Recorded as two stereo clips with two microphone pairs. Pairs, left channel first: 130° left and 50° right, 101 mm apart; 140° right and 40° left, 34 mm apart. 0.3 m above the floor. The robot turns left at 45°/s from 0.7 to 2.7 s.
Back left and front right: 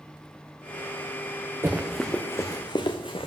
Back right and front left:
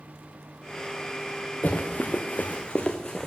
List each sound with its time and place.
1.6 s running footsteps: 120° right, 1.6 m; by 3.3 s 145° left, 1.5 m